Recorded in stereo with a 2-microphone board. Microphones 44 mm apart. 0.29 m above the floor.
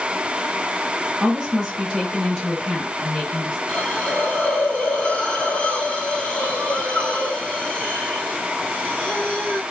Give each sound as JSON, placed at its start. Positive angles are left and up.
{"t": 1.2, "sound": "a woman speaking", "side_deg": -10, "distance_m": 1.6}
{"t": 3.7, "sound": "a hiss", "side_deg": 30, "distance_m": 1.1}